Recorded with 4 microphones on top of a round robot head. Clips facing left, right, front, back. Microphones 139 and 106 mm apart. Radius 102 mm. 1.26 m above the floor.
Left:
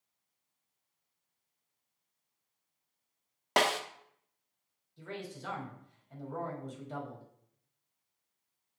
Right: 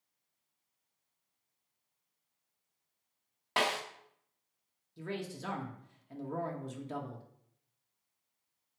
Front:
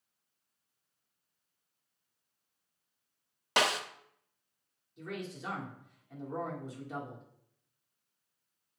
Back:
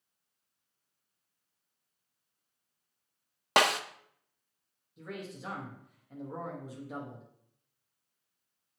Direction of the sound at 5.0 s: 95° right.